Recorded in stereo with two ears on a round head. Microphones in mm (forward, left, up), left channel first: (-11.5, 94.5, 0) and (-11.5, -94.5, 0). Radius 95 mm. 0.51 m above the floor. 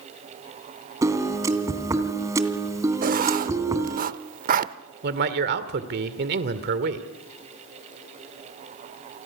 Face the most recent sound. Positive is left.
turn(degrees=-50)  # may be behind; listen again after turning